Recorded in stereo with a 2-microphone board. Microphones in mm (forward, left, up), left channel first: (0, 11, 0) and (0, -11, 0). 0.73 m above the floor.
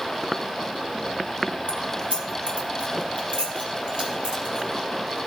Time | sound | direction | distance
1.7 | keys jangling | 85° right | 2.5 m